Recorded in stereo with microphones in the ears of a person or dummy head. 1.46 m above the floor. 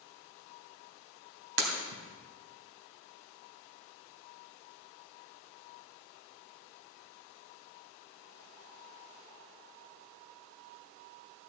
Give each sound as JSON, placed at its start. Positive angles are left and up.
{"t": 1.6, "sound": "breaking glass", "side_deg": -70, "distance_m": 3.0}